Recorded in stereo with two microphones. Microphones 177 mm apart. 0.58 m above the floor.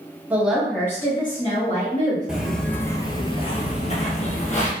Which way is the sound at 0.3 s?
10° right (ahead or behind).